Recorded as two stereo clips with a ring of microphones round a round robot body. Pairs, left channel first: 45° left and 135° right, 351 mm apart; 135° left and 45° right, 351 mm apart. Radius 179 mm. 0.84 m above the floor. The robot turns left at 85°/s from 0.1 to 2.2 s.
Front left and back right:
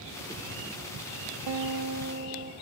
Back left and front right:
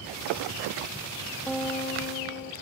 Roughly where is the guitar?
Behind right.